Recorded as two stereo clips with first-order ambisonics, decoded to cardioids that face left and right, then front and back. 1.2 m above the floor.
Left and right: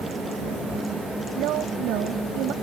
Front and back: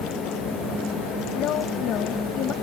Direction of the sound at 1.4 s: 50° right.